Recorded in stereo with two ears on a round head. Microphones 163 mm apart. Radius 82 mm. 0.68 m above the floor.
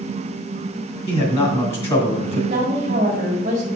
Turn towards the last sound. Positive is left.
turn(degrees=-35)  # may be behind; listen again after turning